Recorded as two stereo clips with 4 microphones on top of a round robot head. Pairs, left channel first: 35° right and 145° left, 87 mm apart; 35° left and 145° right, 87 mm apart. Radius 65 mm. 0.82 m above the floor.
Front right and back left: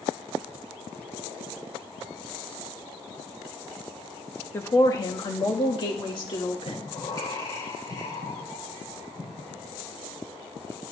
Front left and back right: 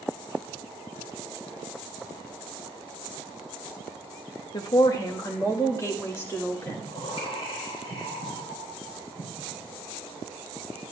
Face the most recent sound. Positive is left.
turn(degrees=10)